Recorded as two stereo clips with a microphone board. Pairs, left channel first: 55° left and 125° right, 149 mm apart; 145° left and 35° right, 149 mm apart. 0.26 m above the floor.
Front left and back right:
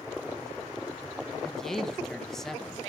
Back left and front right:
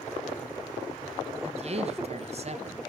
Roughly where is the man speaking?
Ahead right.